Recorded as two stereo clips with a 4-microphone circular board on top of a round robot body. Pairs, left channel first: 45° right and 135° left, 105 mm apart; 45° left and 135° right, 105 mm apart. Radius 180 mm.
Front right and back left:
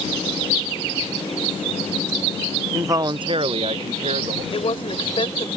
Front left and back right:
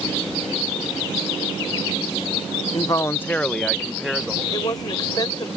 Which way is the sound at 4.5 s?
5° right.